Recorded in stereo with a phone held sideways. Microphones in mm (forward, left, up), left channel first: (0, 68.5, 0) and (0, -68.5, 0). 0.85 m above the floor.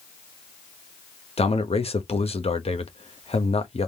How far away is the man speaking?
About 0.8 m.